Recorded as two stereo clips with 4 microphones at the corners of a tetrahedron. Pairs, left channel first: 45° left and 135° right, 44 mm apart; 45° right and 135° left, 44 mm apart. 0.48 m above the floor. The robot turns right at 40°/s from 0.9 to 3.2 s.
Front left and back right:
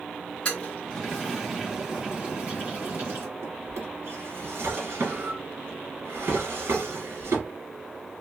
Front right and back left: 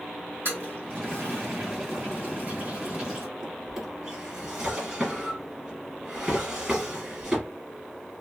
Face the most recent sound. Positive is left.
turn(degrees=-150)